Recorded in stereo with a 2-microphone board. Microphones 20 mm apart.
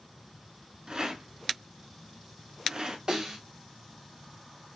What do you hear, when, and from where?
0.9 s a rattle: 50° right (ahead or behind), 1.0 m
3.1 s a snare drum: 45° right (ahead or behind), 2.5 m